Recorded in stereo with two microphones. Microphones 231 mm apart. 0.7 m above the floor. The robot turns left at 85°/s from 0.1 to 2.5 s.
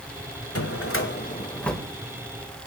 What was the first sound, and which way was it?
A drawer, 100° left.